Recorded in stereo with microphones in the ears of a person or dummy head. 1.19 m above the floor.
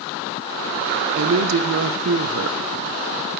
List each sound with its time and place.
1.2 s a woman speaking: 65° right (ahead or behind), 0.6 m